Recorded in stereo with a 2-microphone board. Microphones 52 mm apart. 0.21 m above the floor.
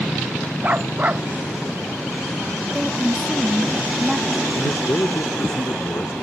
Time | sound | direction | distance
0.6 | a dog barking | 30° right (ahead or behind) | ?
2.7 | a woman speaking | 10° right (ahead or behind) | ?
4.5 | a man speaking | 60° left (ahead or behind) | ?